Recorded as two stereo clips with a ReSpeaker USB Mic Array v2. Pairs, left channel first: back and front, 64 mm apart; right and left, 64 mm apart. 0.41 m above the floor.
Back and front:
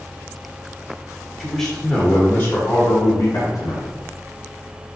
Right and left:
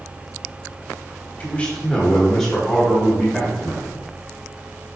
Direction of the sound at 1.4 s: 85° right.